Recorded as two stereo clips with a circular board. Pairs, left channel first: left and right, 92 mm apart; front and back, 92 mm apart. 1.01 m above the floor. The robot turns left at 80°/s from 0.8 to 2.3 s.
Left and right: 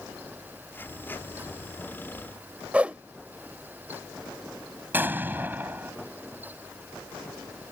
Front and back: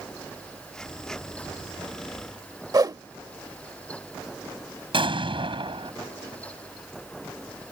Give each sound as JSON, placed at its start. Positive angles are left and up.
{"t": 2.7, "sound": "a whoosh", "azimuth_deg": -160}
{"t": 4.9, "sound": "an explosion", "azimuth_deg": -160}